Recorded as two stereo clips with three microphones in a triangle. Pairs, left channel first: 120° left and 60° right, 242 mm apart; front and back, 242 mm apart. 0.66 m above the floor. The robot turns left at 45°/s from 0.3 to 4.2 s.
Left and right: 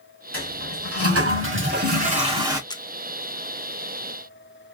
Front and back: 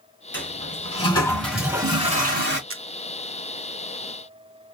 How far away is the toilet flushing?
About 3.5 m.